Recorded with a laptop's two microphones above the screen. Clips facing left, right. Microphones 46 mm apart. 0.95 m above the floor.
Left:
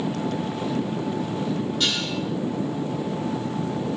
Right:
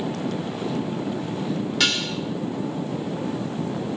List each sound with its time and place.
1.8 s dishes clattering: 80° right, 2 m